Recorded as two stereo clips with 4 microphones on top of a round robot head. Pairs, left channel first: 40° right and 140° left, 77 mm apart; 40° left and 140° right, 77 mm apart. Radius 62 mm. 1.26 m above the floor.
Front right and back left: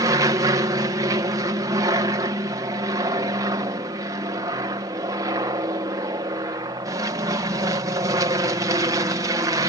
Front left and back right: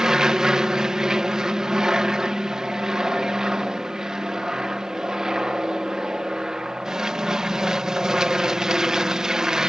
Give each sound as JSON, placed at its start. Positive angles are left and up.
{"t": 0.0, "sound": "an aircraft", "azimuth_deg": 140}